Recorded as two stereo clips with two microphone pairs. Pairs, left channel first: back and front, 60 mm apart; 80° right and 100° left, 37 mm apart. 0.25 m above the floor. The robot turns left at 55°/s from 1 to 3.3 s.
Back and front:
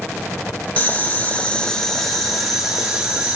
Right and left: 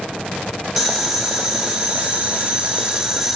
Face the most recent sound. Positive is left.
turn(degrees=40)